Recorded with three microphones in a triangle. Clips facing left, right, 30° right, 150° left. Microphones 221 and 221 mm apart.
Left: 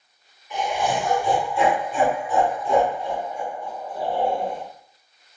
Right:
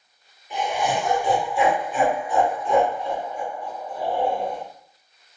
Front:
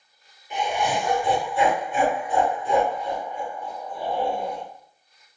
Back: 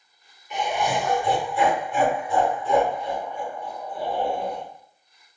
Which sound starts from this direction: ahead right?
Laughter, at 0.5 s.